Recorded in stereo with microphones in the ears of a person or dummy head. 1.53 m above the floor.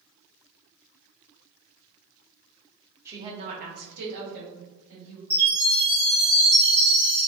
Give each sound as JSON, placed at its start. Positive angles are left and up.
{"t": 3.0, "sound": "a woman speaking", "side_deg": -15, "distance_m": 0.5}
{"t": 5.3, "sound": "a chime", "side_deg": 0, "distance_m": 1.5}